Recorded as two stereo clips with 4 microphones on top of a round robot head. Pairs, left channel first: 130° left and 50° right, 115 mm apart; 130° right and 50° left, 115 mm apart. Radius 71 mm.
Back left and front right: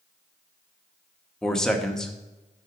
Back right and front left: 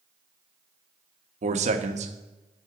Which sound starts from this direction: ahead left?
A man speaking, at 1.4 s.